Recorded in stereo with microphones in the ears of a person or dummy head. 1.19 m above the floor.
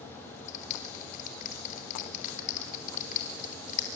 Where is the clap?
45° left (ahead or behind), 3.5 m.